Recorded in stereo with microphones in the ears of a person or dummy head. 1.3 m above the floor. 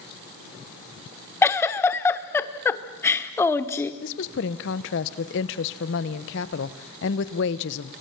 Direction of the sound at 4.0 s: 65° left (ahead or behind).